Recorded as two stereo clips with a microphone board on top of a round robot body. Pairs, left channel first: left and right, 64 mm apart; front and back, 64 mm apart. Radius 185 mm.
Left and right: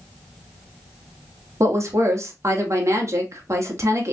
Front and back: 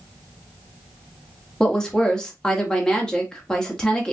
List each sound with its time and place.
1.6 s a woman speaking: 75° right, 1.3 m